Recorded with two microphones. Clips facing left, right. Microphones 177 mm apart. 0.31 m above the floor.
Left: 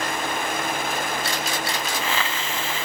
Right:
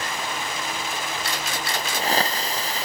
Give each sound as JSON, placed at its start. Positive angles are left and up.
{"t": 1.7, "sound": "a hiss", "side_deg": -40}